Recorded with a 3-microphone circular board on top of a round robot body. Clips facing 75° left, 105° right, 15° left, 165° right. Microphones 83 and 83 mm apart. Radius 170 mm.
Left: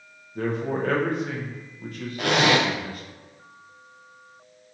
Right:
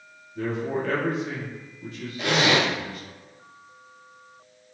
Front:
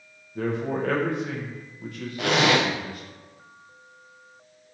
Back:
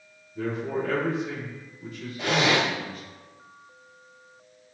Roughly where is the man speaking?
Ahead left.